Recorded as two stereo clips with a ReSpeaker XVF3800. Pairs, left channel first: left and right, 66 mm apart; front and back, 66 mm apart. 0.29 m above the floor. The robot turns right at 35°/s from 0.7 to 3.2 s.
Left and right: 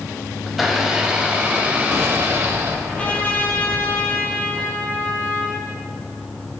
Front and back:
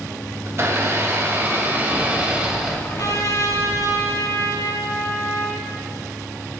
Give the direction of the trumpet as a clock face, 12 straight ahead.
11 o'clock.